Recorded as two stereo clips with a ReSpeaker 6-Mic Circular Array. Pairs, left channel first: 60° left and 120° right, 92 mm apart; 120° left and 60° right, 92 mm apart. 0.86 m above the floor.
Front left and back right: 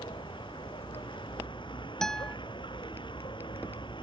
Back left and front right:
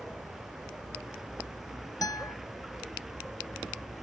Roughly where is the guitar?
Behind left.